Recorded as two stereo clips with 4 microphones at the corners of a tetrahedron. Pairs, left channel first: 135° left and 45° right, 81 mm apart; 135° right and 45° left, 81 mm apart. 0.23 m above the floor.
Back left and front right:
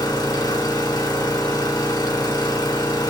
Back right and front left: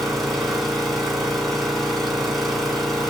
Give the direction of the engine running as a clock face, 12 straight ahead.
7 o'clock.